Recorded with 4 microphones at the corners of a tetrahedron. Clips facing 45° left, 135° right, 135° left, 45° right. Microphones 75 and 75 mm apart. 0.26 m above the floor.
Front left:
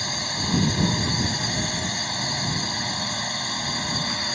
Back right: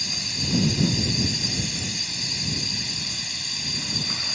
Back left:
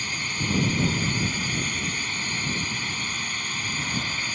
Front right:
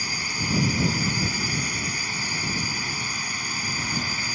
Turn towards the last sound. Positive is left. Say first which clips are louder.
# front left 5 dB, even
turn(degrees=35)